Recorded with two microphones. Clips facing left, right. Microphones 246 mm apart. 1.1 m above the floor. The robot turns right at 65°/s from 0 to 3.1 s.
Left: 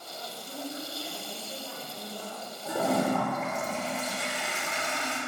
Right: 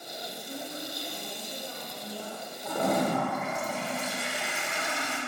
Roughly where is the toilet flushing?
Centre.